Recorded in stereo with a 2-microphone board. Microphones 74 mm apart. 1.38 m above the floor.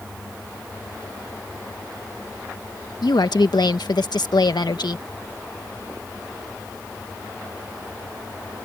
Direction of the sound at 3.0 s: 85° left.